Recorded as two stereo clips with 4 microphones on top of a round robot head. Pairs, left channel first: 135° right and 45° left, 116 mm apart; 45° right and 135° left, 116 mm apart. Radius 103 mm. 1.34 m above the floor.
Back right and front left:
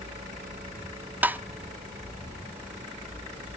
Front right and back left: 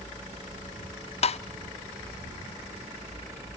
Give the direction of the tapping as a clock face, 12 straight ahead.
1 o'clock.